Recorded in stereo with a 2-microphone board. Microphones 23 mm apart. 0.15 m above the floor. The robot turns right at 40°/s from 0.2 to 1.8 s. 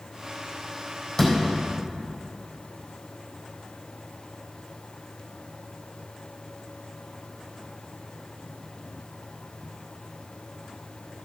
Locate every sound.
1.2 s a door slam: 30° left (ahead or behind), 4 m; by 1.4 s 20° left (ahead or behind), 4 m